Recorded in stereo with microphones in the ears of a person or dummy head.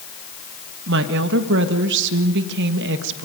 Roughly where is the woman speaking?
Right.